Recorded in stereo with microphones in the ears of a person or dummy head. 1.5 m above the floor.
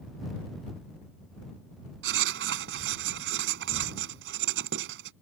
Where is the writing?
60° right (ahead or behind).